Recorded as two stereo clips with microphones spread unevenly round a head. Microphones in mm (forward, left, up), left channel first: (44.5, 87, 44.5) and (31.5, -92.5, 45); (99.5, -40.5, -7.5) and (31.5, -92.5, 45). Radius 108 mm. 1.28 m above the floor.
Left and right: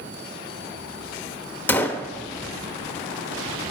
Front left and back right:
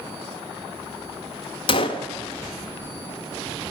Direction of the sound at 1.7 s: 20° left.